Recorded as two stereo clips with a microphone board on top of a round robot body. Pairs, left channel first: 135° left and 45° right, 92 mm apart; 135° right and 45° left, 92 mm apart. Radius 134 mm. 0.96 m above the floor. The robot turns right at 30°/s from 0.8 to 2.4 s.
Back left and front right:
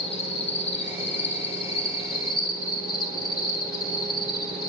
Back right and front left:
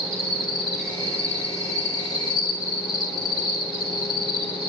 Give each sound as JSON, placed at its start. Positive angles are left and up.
{"t": 0.0, "sound": "an insect", "azimuth_deg": 140, "distance_m": 4.5}